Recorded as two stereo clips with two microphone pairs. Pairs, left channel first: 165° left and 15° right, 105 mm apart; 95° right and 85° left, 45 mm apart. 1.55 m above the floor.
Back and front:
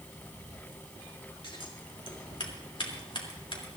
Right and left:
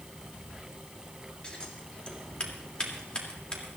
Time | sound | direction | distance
1.4 | scissors | 165° right | 3 m